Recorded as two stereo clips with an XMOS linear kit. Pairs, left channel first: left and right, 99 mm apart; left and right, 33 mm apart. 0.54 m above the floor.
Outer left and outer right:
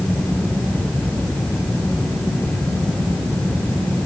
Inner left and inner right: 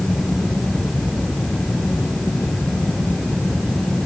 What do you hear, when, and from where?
Only background noise.